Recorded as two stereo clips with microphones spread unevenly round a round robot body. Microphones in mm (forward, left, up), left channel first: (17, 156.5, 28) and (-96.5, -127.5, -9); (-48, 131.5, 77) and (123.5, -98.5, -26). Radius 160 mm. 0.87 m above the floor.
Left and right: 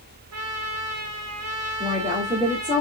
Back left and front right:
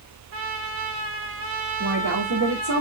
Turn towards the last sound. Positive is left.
turn(degrees=-45)